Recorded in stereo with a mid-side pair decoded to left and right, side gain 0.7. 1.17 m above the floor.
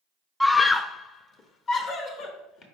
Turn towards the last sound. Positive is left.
turn(degrees=40)